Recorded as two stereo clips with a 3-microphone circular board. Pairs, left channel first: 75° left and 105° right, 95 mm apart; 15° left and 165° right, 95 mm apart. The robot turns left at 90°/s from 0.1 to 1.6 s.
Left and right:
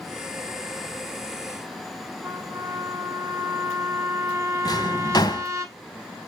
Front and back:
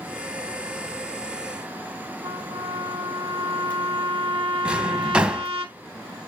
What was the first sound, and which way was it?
A trumpet, 165° right.